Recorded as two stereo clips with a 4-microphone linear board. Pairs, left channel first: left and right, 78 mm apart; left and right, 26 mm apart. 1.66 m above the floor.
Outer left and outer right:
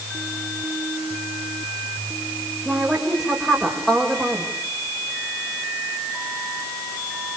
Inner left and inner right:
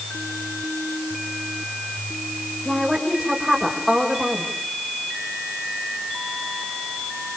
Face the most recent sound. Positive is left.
turn(degrees=5)  # may be behind; listen again after turning